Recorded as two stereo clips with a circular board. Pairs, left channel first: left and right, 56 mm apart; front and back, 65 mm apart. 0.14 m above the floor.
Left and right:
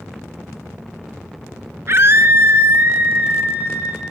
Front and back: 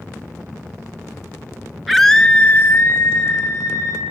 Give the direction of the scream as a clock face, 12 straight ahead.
3 o'clock.